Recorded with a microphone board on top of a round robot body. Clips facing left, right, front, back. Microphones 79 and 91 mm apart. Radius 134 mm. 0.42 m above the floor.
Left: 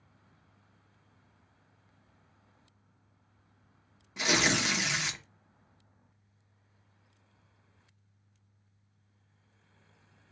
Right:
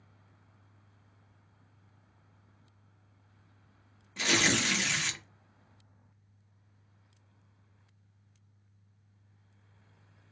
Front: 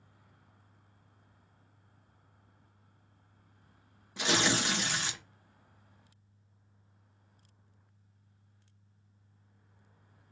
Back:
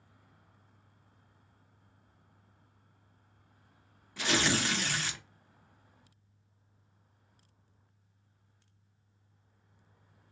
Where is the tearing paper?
30° left, 1.1 m.